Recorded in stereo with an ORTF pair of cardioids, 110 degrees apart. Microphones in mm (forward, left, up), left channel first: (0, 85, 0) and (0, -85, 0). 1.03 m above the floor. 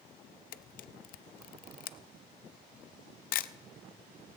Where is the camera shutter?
60° left, 0.5 m.